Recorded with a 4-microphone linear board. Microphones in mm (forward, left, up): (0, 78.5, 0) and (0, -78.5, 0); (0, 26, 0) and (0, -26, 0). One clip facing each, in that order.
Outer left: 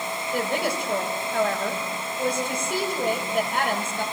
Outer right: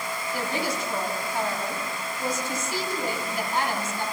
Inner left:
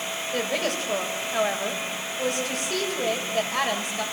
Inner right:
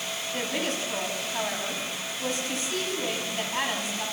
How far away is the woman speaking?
About 7 m.